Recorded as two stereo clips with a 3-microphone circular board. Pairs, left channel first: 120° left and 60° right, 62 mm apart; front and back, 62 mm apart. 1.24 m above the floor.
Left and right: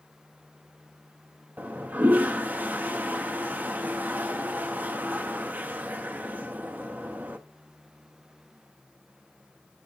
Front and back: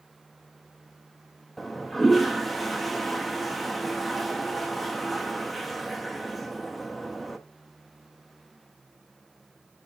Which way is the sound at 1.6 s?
85° right.